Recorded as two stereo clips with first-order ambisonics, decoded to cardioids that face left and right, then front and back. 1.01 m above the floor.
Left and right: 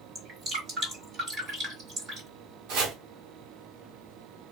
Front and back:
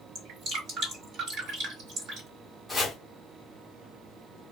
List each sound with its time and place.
0.1 s dripping: 150° right, 1.5 m
2.7 s chopping: 90° right, 1.0 m